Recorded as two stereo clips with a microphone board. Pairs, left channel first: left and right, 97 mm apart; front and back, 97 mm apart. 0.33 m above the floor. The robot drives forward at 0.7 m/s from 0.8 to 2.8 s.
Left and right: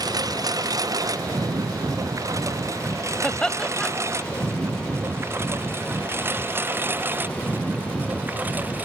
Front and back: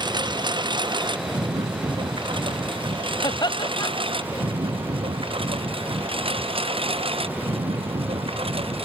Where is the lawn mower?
140° right; by 8.8 s 165° right.